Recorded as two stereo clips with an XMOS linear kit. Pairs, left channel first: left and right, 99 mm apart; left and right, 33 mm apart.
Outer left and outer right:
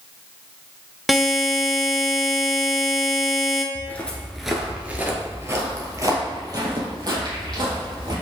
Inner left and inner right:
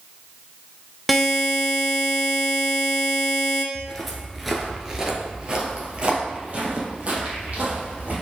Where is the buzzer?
Centre (ahead or behind), 0.7 m.